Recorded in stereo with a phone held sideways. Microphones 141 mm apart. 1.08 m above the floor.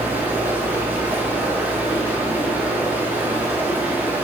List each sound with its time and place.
0.0 s running water: 10° right (ahead or behind), 1.0 m